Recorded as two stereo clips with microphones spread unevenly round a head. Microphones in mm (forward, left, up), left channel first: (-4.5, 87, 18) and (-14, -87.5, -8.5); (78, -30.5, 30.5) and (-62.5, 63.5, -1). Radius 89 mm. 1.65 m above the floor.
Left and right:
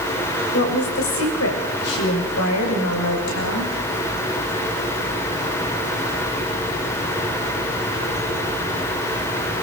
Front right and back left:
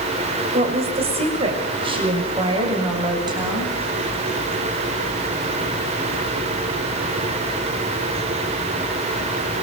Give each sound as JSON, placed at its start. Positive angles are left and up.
{"t": 0.5, "sound": "a woman speaking", "azimuth_deg": 90, "distance_m": 6.5}